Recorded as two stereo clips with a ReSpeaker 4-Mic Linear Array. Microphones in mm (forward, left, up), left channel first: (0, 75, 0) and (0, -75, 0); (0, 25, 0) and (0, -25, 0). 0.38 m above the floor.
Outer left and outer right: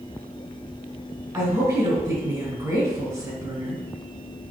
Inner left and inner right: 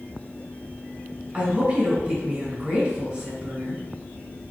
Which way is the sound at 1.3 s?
25° right (ahead or behind).